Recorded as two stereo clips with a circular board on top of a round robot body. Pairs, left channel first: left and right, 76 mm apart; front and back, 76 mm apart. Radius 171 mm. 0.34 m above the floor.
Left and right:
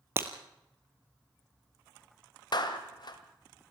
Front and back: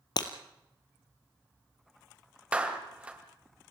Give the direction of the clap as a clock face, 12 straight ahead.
8 o'clock.